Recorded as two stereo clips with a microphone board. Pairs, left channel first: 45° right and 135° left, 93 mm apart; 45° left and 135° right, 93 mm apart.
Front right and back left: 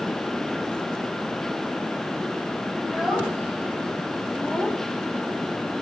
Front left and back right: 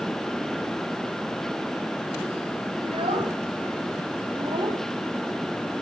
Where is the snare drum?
I don't hear a snare drum.